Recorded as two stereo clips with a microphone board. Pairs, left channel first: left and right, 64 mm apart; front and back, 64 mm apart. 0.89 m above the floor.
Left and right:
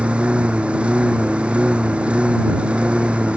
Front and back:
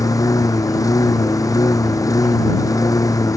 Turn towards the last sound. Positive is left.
turn(degrees=-20)